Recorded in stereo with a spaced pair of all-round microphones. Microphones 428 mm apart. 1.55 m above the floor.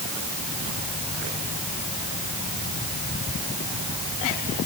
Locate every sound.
Only background noise.